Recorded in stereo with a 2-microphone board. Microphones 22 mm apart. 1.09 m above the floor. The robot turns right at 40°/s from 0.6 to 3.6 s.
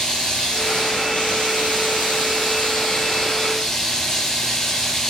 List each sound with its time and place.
0.0 s running water: 35° left, 9.5 m; by 5.1 s 155° left, 9.5 m